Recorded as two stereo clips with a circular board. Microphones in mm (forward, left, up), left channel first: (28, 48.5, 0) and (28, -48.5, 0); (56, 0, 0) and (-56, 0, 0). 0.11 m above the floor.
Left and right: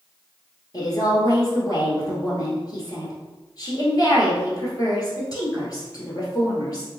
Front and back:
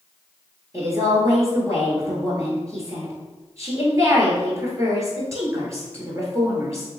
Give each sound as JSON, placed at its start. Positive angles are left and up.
{"t": 0.7, "sound": "a woman speaking", "azimuth_deg": 125, "distance_m": 1.8}